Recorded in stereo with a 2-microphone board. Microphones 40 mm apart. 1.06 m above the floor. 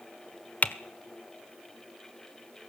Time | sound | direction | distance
0.6 | typing on a keyboard | 40° left (ahead or behind) | 1.0 m